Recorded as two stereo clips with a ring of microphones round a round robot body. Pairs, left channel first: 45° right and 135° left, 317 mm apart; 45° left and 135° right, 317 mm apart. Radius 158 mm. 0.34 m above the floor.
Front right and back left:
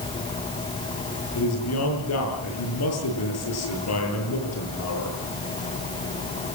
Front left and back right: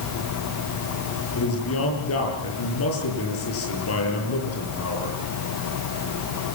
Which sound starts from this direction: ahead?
A man speaking, at 1.4 s.